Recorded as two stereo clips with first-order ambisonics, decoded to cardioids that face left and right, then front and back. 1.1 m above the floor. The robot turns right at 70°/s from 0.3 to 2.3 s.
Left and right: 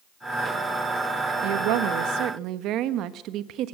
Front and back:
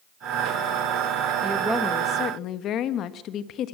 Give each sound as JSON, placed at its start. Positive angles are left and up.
{"t": 1.4, "sound": "a woman speaking", "azimuth_deg": -110, "distance_m": 1.2}